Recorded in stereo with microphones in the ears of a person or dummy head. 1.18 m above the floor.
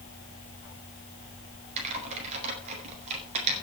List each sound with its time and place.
1.8 s typing on a keyboard: 35° right (ahead or behind), 4.5 m